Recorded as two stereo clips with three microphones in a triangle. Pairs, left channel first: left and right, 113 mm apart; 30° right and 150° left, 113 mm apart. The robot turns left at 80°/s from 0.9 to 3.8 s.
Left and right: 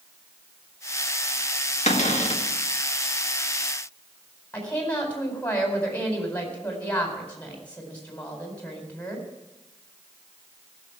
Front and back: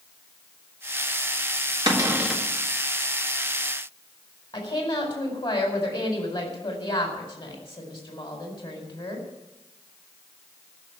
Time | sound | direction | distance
1.9 | a cupboard door | 100° left | 1.7 m
4.5 | a woman speaking | 15° left | 4.5 m